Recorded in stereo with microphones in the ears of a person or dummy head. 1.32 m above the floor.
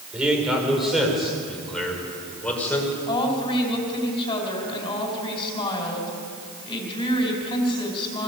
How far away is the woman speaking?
About 5.5 m.